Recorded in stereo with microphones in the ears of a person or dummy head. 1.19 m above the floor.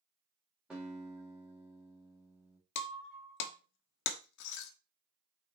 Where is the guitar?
5° right (ahead or behind), 4 m.